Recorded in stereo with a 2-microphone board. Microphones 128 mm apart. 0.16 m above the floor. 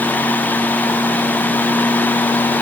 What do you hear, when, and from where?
Only background noise.